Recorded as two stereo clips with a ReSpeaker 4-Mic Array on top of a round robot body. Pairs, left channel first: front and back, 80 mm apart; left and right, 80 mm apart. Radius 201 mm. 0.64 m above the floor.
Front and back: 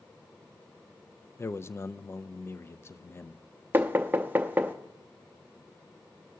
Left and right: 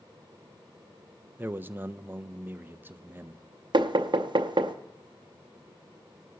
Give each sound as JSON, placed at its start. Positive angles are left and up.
{"t": 1.4, "sound": "a man speaking", "azimuth_deg": -40, "distance_m": 0.6}
{"t": 3.7, "sound": "knocking", "azimuth_deg": -115, "distance_m": 0.6}